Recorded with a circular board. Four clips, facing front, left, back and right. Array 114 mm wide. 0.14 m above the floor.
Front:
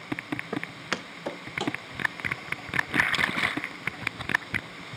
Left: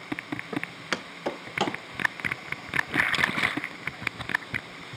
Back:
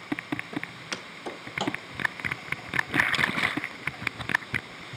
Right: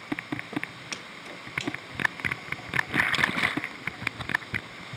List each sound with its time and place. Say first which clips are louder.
0.5 s footsteps: left 3 dB, front 3 dB; 20° left, 0.9 m; by 1.8 s 100° left, 1.2 m